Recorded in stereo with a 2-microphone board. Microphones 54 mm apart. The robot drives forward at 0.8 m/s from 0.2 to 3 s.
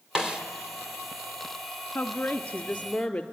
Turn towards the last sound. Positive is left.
turn(degrees=15)  # may be behind; listen again after turning